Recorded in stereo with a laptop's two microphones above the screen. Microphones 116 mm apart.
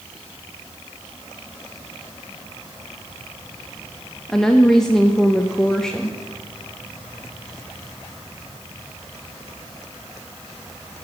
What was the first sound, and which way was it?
A woman speaking, 5° left (ahead or behind).